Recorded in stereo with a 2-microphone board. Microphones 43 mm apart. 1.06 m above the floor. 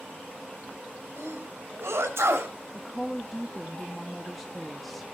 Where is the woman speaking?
Centre (ahead or behind), 1.5 m.